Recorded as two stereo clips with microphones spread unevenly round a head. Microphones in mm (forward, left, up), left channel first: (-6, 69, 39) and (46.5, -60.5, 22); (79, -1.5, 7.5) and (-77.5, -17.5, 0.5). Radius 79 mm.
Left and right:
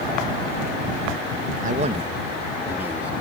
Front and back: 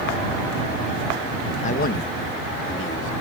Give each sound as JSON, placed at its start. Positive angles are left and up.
{"t": 1.6, "sound": "a man speaking", "azimuth_deg": -35}